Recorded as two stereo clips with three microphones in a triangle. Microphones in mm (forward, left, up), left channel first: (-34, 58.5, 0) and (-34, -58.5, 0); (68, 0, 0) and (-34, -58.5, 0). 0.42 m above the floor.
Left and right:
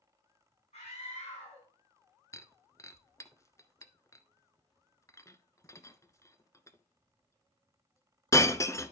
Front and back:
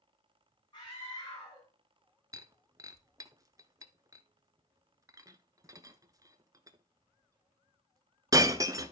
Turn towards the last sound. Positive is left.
turn(degrees=155)